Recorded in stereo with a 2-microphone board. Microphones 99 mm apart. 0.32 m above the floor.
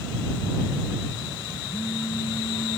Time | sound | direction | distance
1.7 | a phone buzzing | 65° left (ahead or behind) | ?